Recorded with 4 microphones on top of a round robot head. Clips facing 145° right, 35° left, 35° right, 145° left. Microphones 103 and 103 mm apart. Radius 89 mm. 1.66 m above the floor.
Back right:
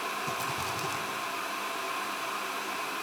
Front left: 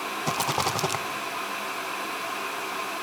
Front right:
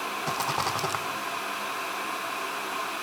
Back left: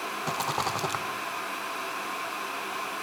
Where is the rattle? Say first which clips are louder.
Front left 7 dB, even; 60° left, 0.9 m.